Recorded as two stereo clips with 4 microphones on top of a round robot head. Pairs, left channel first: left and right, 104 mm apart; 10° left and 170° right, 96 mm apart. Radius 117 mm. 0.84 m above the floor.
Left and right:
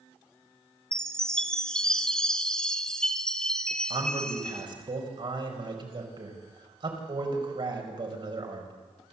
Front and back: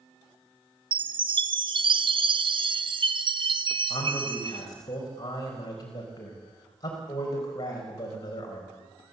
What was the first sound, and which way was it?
A chime, 170° left.